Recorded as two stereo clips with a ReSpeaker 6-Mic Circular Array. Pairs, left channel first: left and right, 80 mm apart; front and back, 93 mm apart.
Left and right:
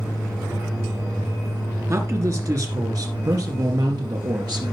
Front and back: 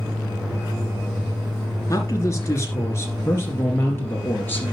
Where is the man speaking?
45° right, 2.5 m; by 4.7 s 65° right, 3.5 m.